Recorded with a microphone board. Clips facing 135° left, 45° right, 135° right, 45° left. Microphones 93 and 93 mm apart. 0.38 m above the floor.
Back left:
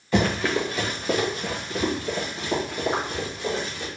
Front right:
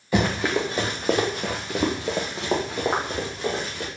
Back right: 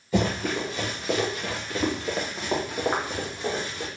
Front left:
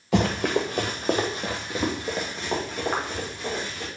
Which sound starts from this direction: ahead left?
Running footsteps, at 0.1 s.